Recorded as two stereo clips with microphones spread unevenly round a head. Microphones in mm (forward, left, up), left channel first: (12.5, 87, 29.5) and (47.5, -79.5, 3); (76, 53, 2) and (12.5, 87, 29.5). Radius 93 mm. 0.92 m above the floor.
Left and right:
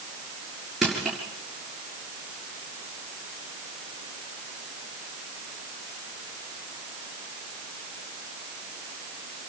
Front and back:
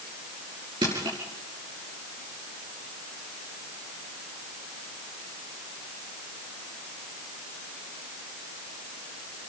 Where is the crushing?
170° right, 6.5 m.